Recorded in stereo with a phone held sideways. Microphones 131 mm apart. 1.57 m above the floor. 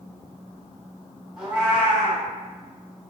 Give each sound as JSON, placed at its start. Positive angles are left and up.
{"t": 1.4, "sound": "a cat meowing", "side_deg": -5, "distance_m": 1.5}